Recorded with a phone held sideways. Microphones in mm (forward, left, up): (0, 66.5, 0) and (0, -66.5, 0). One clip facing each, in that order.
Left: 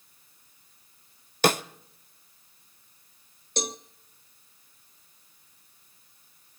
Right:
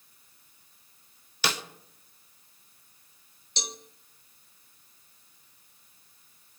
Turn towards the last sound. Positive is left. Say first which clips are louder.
# left 9 dB
turn(degrees=50)  # may be behind; listen again after turning